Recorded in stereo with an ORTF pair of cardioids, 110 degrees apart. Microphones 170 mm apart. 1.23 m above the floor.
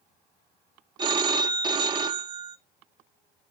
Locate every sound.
1.0 s a phone ringing: 25° right, 0.9 m